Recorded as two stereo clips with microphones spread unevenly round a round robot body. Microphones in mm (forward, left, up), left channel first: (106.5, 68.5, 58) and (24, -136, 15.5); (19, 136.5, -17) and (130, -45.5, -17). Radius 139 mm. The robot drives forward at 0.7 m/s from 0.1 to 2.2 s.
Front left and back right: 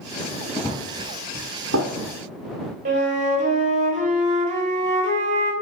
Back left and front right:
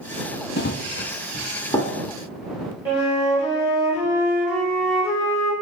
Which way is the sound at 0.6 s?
125° left.